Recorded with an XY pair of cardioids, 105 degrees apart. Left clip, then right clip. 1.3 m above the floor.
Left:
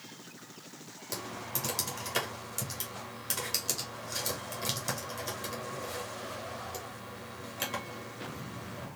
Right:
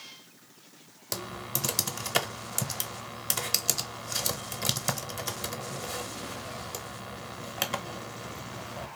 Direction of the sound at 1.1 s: 45° right.